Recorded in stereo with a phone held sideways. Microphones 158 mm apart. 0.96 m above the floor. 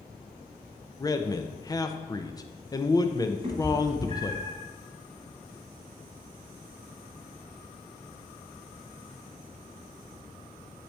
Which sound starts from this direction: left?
A man speaking, at 1.0 s.